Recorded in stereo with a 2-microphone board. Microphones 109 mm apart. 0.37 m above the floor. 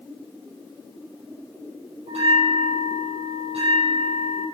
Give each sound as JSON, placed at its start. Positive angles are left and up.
{"t": 2.1, "sound": "a bell", "side_deg": -85, "distance_m": 4.5}